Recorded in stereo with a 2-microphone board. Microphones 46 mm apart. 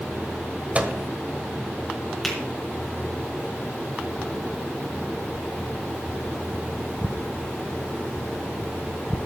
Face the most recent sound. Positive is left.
turn(degrees=5)  # may be behind; listen again after turning